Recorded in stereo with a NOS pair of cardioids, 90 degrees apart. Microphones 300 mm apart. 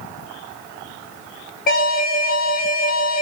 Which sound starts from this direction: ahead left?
An alarm, at 1.7 s.